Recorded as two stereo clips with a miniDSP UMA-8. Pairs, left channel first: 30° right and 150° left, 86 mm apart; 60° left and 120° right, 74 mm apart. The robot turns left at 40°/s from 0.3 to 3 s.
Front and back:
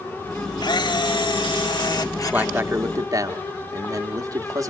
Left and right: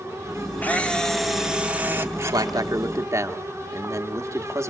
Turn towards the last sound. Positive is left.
turn(degrees=-165)